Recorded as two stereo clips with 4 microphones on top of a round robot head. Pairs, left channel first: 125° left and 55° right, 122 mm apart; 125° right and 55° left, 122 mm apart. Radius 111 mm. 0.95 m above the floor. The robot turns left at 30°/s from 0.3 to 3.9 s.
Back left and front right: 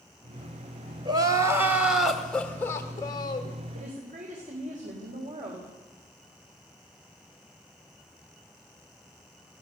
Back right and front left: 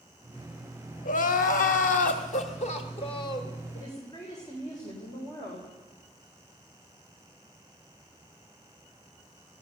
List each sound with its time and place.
1.1 s crying: 110° right, 1.7 m; by 3.6 s 175° left, 1.7 m
3.7 s a woman speaking: 65° right, 4 m; by 5.7 s 70° right, 4 m